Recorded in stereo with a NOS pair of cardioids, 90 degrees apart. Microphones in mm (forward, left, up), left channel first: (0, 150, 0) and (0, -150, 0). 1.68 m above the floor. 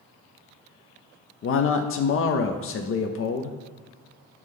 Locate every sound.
1.4 s a man speaking: 45° left, 0.6 m